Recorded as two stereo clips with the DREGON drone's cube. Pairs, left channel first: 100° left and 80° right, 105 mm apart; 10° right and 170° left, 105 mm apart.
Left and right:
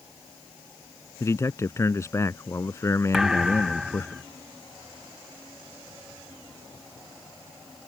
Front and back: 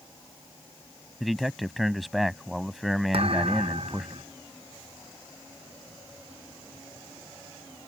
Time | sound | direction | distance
1.2 | a man speaking | 80° left | ?
3.1 | a thud | 165° right | ?